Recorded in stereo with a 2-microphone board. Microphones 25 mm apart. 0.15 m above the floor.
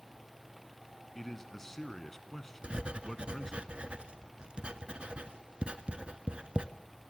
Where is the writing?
45° right (ahead or behind), 0.9 m.